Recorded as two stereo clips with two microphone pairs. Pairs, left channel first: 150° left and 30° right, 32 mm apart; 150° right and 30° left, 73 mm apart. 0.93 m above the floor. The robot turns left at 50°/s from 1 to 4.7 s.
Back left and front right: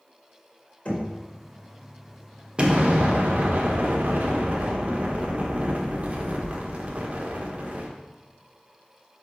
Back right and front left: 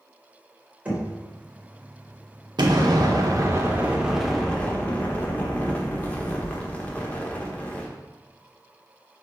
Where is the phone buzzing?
No phone buzzing in this recording.